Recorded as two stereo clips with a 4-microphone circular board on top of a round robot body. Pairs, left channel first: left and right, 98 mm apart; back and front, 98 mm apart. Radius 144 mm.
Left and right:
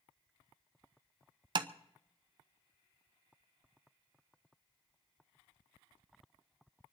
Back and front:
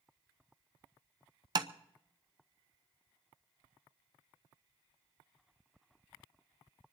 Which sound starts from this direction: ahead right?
Tapping, at 1.6 s.